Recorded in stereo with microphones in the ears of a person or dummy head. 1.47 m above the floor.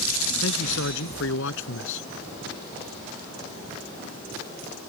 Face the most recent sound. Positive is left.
turn(degrees=70)  # may be behind; listen again after turning